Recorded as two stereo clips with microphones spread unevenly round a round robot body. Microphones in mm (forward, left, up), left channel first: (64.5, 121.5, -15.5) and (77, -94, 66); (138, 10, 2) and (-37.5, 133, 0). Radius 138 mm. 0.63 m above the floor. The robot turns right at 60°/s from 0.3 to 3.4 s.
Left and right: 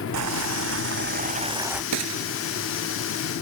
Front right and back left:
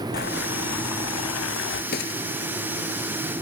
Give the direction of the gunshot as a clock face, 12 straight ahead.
3 o'clock.